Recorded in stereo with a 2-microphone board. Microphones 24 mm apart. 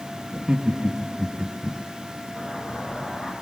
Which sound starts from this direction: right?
Laughter, at 0.3 s.